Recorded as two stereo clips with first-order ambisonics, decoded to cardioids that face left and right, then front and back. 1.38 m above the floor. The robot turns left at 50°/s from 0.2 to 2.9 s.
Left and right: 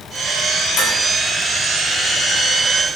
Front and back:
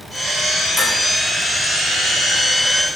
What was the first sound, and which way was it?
Dishes clattering, 95° left.